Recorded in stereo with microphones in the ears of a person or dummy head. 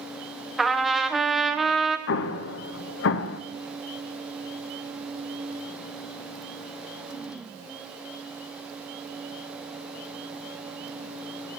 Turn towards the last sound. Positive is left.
turn(degrees=70)  # may be behind; listen again after turning